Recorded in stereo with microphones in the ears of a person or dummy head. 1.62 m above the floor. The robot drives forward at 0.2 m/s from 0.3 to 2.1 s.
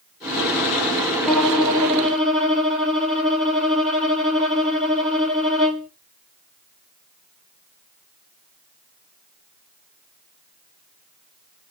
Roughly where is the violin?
Centre.